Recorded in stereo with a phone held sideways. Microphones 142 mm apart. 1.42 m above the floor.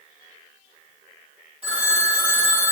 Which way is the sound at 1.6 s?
45° right (ahead or behind).